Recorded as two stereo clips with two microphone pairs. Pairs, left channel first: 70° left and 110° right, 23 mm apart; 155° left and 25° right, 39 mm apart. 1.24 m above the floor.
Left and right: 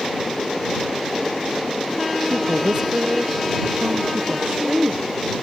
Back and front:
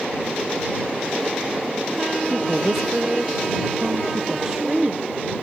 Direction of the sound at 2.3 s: 95° right.